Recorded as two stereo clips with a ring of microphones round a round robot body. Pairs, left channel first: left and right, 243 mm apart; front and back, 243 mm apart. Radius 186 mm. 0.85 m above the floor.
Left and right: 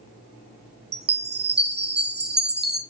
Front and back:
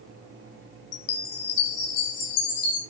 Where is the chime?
40° right, 1.9 m.